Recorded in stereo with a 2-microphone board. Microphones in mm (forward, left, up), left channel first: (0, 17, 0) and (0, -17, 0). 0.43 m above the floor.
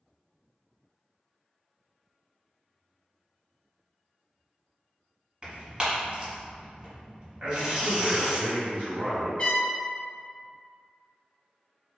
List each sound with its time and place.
5.4 s tearing paper: 25° right (ahead or behind), 1.2 m
7.4 s a man speaking: 50° right (ahead or behind), 1.6 m
9.4 s a trumpet: 40° left (ahead or behind), 0.8 m